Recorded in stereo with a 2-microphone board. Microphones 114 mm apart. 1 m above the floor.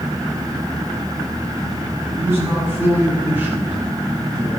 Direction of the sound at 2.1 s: 20° right (ahead or behind).